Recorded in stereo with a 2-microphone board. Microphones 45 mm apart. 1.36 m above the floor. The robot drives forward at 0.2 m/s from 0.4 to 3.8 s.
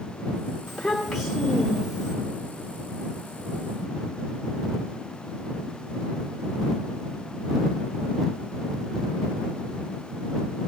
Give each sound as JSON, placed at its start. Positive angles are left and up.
{"t": 0.7, "sound": "a child speaking", "side_deg": 0, "distance_m": 2.5}